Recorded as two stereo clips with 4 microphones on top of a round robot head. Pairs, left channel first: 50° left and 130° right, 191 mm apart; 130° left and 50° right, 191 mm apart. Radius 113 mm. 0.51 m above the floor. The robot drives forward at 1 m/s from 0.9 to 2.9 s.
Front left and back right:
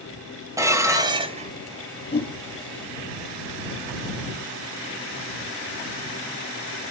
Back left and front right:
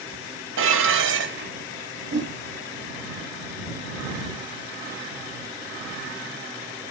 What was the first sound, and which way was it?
Dishes clattering, 60° right.